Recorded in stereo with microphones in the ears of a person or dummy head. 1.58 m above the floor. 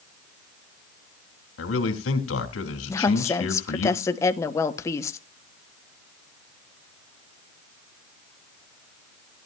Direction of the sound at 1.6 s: 85° left.